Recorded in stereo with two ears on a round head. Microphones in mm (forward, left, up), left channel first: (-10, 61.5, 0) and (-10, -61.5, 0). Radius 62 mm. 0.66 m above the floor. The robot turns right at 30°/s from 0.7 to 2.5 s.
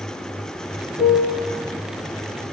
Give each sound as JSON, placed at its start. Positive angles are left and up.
{"t": 1.0, "sound": "a piano", "side_deg": 75, "distance_m": 3.0}